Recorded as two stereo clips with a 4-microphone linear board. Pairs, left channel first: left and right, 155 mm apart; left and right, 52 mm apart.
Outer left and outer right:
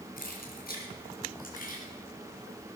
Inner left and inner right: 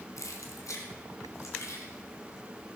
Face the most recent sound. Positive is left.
turn(degrees=55)  # may be behind; listen again after turning